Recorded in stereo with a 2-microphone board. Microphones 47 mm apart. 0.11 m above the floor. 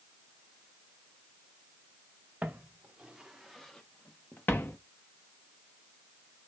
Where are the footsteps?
35° right (ahead or behind), 1.2 m; by 4.8 s 55° left (ahead or behind), 1.0 m.